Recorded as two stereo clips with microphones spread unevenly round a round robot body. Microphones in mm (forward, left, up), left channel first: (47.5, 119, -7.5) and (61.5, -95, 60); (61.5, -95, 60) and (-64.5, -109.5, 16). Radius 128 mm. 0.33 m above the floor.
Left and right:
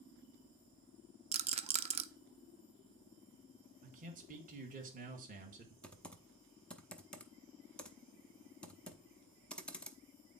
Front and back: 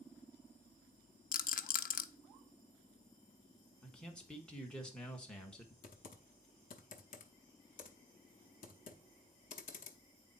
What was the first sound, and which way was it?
A rattle, 15° right.